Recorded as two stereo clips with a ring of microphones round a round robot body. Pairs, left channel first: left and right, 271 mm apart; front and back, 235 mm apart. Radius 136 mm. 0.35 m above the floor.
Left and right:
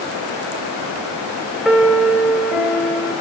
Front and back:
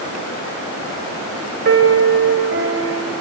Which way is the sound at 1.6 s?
Straight behind.